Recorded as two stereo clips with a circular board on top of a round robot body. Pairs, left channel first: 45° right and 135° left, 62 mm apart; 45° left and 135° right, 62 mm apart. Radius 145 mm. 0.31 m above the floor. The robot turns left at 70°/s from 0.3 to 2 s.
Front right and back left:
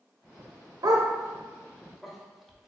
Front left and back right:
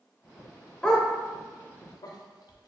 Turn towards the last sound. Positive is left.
turn(degrees=45)